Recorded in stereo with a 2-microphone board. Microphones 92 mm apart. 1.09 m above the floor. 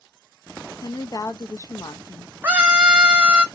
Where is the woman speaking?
40° left (ahead or behind), 0.6 m.